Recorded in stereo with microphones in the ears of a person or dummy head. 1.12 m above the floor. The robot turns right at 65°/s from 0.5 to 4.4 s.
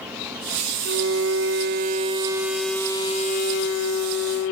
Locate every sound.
0.8 s a violin: 120° right, 0.8 m; by 4.5 s 115° left, 0.8 m